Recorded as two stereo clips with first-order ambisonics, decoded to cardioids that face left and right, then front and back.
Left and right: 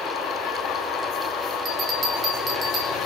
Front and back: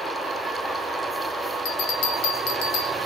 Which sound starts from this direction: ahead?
A bell, at 1.6 s.